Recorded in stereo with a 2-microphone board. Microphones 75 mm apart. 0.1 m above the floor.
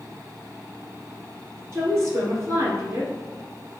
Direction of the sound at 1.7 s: 35° right (ahead or behind).